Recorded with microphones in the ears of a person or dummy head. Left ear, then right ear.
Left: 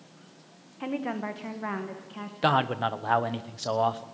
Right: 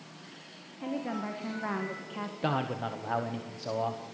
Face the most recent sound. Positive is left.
turn(degrees=40)  # may be behind; listen again after turning